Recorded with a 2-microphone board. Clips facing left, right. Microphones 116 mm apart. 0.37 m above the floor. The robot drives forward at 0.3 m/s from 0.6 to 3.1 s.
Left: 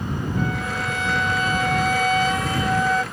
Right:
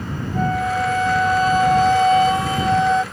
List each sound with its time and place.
0.3 s a flute: 40° right (ahead or behind); by 3.0 s 25° right (ahead or behind)